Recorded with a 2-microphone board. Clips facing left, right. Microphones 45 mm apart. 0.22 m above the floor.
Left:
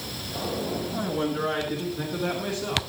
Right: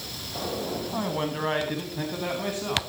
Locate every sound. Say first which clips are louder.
0.9 s a man speaking: left 1 dB; 35° right (ahead or behind), 2 m; by 2.8 s 20° right (ahead or behind), 2.5 m